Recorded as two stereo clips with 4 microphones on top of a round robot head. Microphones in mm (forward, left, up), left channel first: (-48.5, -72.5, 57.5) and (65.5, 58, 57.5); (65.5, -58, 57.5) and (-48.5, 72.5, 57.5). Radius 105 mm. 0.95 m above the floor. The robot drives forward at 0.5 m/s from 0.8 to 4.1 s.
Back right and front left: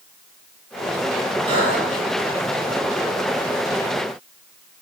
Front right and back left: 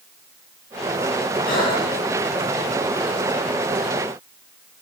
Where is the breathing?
10° right, 7 m.